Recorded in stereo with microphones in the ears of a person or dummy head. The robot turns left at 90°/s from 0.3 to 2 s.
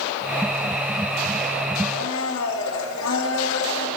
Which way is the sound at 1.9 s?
80° left.